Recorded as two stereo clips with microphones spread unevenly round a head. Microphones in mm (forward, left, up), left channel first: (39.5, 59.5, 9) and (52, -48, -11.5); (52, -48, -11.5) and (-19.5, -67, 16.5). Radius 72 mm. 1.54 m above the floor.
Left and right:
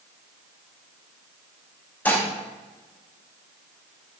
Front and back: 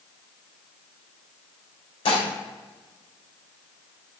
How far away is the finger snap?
No finger snap in this recording.